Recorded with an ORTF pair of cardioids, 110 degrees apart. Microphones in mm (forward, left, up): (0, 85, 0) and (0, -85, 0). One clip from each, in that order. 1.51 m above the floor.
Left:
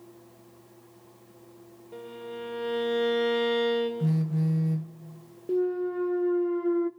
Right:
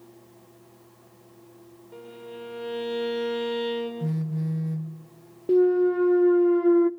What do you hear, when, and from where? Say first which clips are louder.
1.9 s a violin: left 2 dB; 10° left, 6.5 m
4.0 s a phone buzzing: left 2 dB; 20° left, 1.2 m
5.5 s a clunk: right 8 dB; 25° right, 0.6 m